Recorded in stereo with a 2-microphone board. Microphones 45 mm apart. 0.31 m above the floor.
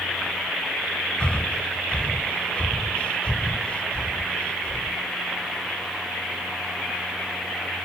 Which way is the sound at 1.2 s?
25° left (ahead or behind).